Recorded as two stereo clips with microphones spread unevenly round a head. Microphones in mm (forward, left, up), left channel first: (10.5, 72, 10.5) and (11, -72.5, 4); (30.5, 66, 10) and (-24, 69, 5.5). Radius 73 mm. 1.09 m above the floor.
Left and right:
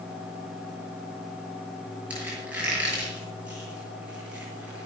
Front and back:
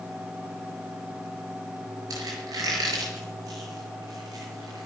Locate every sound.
2.1 s a squeak: 170° right, 7 m